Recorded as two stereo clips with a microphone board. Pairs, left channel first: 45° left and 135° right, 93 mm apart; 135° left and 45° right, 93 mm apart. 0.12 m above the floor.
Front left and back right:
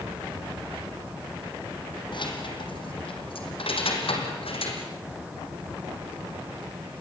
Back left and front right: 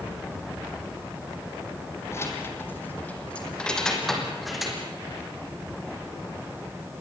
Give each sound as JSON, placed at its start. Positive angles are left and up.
{"t": 2.1, "sound": "keys jangling", "azimuth_deg": 75, "distance_m": 3.5}